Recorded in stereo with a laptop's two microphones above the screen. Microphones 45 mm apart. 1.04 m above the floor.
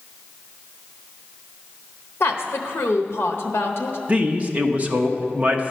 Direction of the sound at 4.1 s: 30° right (ahead or behind).